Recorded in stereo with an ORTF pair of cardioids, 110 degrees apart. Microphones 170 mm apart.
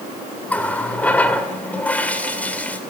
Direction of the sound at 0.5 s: 10° left.